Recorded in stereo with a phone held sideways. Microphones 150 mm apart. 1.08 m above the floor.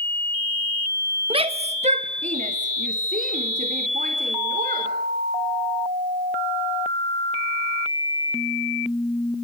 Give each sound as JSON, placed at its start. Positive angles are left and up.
{"t": 1.3, "sound": "a shout", "side_deg": -35, "distance_m": 1.3}